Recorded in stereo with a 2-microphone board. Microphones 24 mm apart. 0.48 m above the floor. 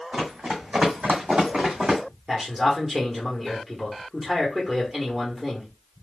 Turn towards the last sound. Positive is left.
turn(degrees=-5)  # may be behind; listen again after turning